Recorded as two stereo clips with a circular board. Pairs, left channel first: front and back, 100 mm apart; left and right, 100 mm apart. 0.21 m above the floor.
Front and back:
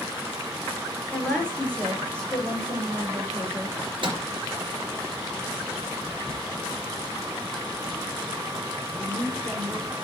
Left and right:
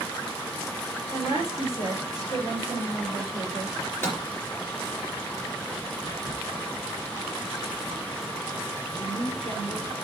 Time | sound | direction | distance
1.1 | a woman speaking | 80° left | 4.5 m
3.8 | a microwave | 150° left | 3.5 m
6.1 | whispering | 140° right | 2 m
8.9 | a woman speaking | 135° left | 3.5 m